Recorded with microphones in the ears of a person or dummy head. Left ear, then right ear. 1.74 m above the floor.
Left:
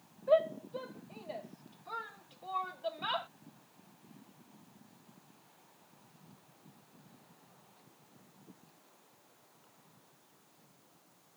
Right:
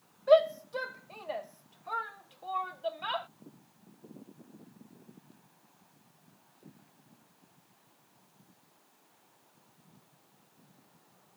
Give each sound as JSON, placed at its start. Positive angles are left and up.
{"t": 0.3, "sound": "a shout", "side_deg": -80}